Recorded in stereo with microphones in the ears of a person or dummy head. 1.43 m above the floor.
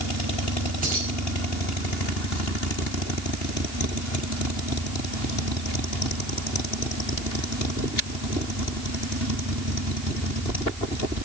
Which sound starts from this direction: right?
Keys jangling, at 0.8 s.